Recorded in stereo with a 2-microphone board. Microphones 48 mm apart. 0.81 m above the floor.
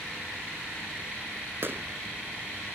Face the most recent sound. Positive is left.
turn(degrees=-50)  # may be behind; listen again after turning